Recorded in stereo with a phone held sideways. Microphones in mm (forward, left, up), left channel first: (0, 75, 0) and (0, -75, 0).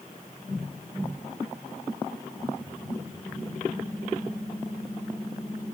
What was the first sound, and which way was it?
Only background noise.